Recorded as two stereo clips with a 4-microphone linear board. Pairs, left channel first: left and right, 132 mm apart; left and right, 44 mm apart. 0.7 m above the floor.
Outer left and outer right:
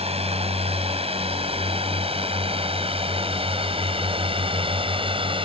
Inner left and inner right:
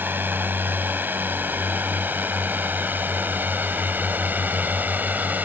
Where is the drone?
50° right (ahead or behind); by 5.4 s 40° right (ahead or behind).